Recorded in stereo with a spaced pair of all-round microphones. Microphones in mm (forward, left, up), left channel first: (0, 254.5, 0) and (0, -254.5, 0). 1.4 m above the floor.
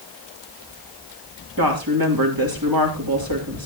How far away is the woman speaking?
About 3 m.